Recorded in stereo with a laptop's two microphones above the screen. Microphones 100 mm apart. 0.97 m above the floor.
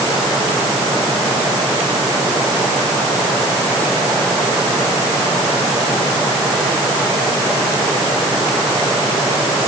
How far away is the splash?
I don't hear a splash.